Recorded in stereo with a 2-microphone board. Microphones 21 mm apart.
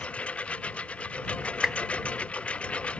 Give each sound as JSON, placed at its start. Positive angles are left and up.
{"t": 0.0, "sound": "a lawn mower", "side_deg": 75}
{"t": 1.6, "sound": "a whoosh", "side_deg": -10}